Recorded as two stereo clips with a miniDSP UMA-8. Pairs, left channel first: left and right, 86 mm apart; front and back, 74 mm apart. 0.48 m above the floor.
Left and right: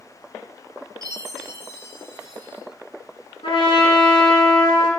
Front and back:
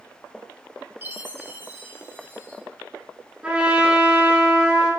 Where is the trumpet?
105° left, 3.5 m.